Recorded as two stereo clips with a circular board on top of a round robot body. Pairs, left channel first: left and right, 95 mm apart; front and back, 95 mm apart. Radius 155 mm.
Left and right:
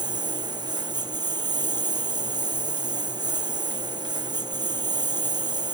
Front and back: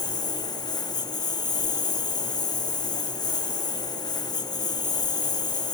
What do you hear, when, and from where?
0.0 s a lawn mower: 45° right